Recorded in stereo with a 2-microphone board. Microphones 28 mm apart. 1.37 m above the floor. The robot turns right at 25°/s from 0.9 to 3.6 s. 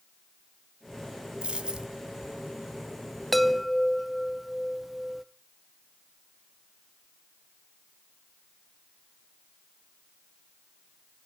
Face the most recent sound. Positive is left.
turn(degrees=-5)  # may be behind; listen again after turning